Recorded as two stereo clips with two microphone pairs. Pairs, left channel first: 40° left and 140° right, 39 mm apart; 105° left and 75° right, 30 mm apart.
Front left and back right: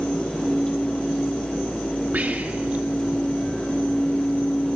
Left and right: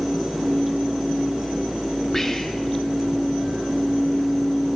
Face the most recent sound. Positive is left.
turn(degrees=-175)